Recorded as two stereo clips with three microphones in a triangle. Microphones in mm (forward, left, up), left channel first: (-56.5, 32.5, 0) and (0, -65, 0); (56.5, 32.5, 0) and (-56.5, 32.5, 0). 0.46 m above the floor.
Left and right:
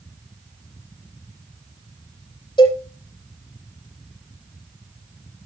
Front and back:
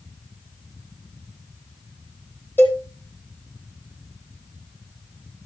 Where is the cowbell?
75° left, 9.5 m.